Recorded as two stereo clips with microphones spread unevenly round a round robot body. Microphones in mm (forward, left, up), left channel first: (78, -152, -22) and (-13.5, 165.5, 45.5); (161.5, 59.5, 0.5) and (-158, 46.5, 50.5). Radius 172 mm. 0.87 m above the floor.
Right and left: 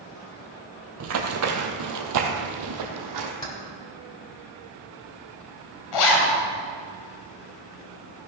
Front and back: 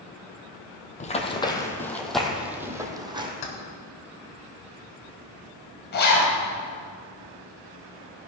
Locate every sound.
1.0 s running footsteps: 75° left, 1.7 m; by 3.3 s 110° left, 2 m
3.4 s keys jangling: 5° left, 3 m
5.9 s a zipper: 60° right, 2.5 m